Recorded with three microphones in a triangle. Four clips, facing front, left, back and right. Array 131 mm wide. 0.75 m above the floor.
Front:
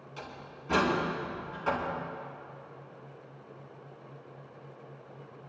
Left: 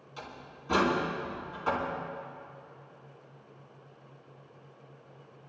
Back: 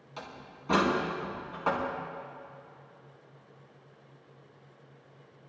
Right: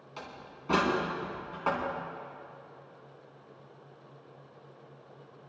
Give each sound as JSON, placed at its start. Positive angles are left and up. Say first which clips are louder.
{"t": 0.2, "sound": "a door slam", "louder": "even, back 1 dB", "azimuth_deg": -125, "distance_m": 6.0}